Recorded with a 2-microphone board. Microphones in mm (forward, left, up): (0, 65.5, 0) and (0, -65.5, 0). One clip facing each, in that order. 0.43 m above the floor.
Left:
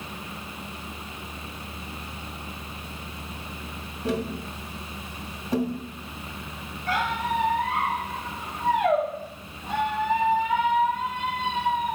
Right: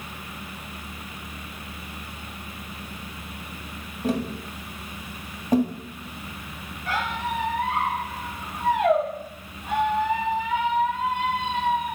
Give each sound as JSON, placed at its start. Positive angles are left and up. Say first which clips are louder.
{"t": 4.0, "sound": "tapping", "louder": "right 2 dB", "side_deg": -45, "distance_m": 1.9}
{"t": 6.9, "sound": "a squeak", "louder": "left 2 dB", "side_deg": -80, "distance_m": 4.5}